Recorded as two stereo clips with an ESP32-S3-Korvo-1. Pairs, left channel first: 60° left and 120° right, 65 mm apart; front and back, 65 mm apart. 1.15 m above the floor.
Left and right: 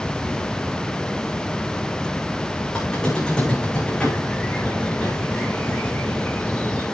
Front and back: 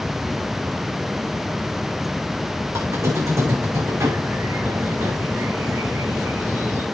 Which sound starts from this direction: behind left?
A squeak, at 2.7 s.